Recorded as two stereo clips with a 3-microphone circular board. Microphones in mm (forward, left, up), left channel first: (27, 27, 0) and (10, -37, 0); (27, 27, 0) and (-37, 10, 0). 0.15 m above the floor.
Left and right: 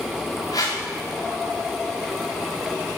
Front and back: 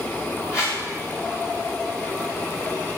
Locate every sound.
0.5 s a whoosh: 65° left, 6 m